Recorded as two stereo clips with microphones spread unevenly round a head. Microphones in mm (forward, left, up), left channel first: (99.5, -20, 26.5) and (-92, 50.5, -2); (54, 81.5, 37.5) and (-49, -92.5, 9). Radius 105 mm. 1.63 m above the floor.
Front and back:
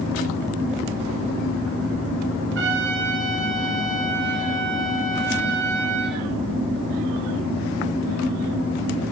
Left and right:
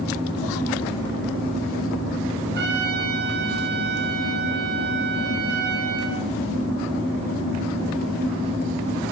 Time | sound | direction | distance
2.5 | a trumpet | 160° right | 4.5 m